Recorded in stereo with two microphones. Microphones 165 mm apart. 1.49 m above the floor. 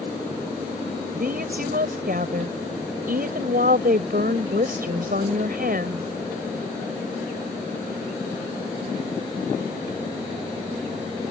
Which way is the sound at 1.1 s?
60° right (ahead or behind).